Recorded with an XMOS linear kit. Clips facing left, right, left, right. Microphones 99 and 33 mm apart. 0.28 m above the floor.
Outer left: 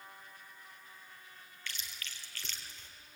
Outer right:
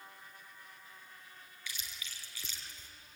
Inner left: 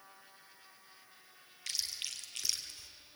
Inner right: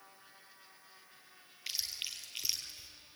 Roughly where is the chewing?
Centre.